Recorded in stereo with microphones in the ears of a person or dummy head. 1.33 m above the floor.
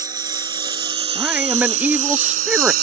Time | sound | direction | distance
0.0 | a lawn mower | 10° right (ahead or behind) | ?
1.1 | a man speaking | centre (ahead or behind) | ?